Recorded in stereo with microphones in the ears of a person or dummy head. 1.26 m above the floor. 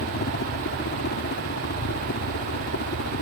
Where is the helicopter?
50° left (ahead or behind); by 3.2 s 55° left (ahead or behind).